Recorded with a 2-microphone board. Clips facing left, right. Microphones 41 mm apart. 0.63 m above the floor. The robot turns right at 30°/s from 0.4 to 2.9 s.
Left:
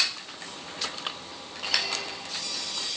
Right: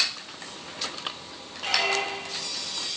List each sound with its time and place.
1.6 s a squeak: 55° right (ahead or behind), 0.9 m; by 2.5 s 35° right (ahead or behind), 0.9 m